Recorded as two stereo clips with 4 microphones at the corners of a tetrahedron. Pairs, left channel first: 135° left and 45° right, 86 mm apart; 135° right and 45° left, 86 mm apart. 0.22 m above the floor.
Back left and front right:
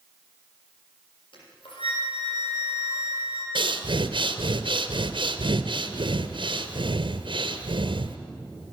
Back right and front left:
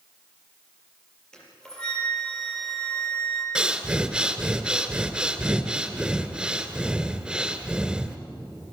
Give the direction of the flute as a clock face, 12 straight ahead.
7 o'clock.